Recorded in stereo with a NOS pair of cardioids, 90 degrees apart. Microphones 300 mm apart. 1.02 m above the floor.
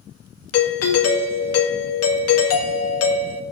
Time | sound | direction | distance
0.5 | a doorbell | 55° left | 1.8 m